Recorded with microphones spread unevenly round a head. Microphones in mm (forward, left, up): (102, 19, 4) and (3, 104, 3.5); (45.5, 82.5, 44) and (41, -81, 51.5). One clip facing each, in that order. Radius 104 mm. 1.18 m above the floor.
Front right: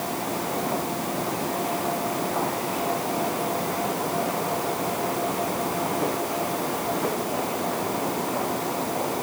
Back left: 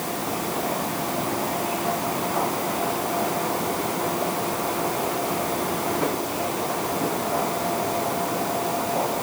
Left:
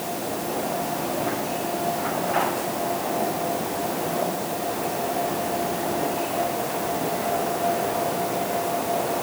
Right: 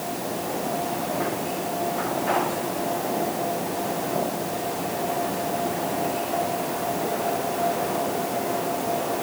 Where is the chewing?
I don't hear chewing.